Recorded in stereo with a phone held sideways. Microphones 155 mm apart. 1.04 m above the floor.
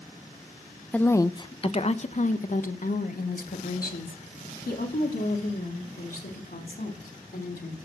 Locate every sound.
0.9 s a woman speaking: 10° left (ahead or behind), 0.6 m; by 7.8 s 80° left, 3.5 m